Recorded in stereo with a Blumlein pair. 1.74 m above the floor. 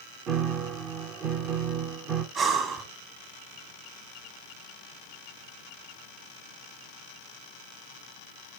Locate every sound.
0.3 s a piano: 30° right, 0.8 m
2.4 s breathing: 30° right, 1.8 m